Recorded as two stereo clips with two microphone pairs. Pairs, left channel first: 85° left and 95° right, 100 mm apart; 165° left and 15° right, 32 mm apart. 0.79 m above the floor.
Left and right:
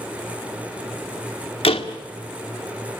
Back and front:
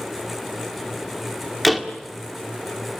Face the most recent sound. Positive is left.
turn(degrees=70)